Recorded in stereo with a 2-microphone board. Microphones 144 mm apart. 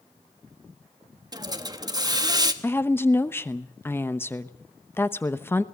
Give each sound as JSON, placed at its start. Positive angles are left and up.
{"t": 1.3, "sound": "a hiss", "side_deg": -30, "distance_m": 1.3}
{"t": 2.6, "sound": "a woman speaking", "side_deg": 15, "distance_m": 0.9}